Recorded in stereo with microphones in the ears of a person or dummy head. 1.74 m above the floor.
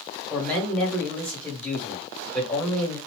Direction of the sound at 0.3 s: 5° left (ahead or behind).